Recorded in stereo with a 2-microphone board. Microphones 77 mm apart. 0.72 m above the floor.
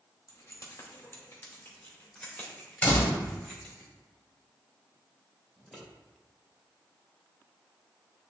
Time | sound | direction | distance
0.3 | keys jangling | 50° left (ahead or behind) | 1.4 m
2.8 | a door slam | 20° left (ahead or behind) | 2 m
5.6 | scissors | 5° right (ahead or behind) | 2.5 m